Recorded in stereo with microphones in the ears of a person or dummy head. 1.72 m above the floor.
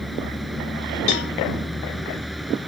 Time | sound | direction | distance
0.0 | a vehicle | centre (ahead or behind) | ?
1.1 | a cowbell | 60° left (ahead or behind) | ?